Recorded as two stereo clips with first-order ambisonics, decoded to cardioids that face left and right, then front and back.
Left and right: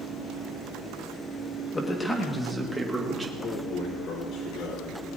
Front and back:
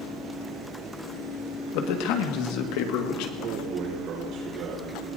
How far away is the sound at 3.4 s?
About 4 m.